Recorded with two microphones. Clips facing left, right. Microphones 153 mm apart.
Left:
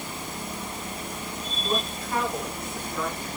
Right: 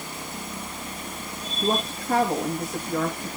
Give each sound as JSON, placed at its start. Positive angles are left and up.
{"t": 1.6, "sound": "a woman speaking", "side_deg": -70, "distance_m": 5.5}